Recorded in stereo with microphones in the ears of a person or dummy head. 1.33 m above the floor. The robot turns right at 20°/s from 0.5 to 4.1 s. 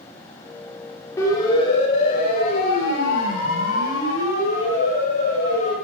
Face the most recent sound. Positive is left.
turn(degrees=65)  # may be behind; listen again after turning